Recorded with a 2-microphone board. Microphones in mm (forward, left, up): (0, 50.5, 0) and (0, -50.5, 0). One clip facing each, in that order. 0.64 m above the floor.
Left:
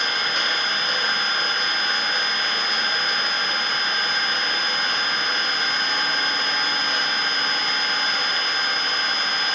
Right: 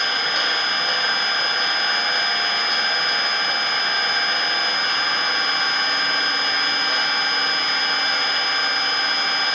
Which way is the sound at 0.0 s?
65° right (ahead or behind).